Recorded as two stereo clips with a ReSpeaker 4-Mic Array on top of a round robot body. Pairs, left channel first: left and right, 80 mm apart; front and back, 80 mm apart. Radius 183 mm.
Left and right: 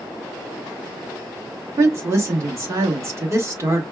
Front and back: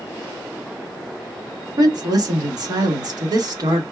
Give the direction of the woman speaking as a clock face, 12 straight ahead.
5 o'clock.